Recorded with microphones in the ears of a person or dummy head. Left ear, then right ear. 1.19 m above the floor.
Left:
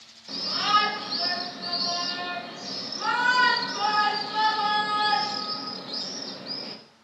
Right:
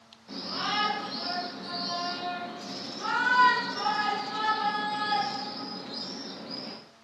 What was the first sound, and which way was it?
A shout, 35° left (ahead or behind).